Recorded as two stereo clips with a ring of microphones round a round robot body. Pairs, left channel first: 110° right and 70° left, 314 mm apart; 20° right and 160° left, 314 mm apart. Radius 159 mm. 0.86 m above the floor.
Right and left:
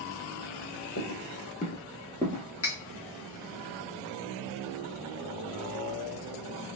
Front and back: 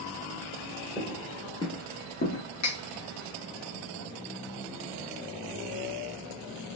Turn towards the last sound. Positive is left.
turn(degrees=-60)